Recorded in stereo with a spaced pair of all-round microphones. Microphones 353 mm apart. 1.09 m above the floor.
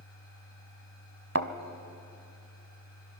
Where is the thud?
45° right (ahead or behind), 1.2 m.